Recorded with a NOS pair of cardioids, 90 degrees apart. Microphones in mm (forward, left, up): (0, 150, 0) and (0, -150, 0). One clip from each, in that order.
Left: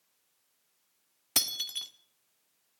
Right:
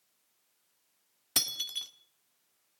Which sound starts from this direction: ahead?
Breaking glass, at 1.4 s.